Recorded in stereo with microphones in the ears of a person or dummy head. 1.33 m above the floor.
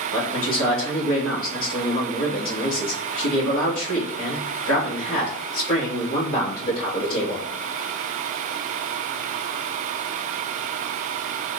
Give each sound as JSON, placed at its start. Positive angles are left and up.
{"t": 0.1, "sound": "a man speaking", "side_deg": 75, "distance_m": 2.5}